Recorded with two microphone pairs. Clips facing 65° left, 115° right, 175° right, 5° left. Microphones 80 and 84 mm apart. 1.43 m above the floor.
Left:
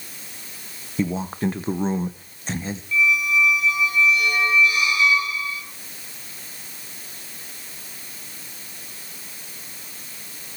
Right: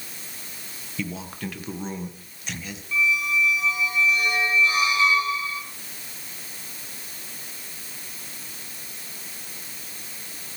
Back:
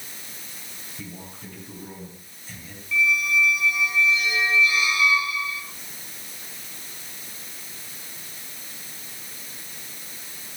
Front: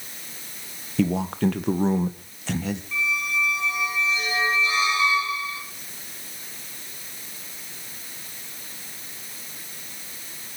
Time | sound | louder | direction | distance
1.0 | a man speaking | left 8 dB, front 19 dB | 10° left | 1.5 m
2.9 | a squeak | left 3 dB, back 7 dB | 55° right | 6 m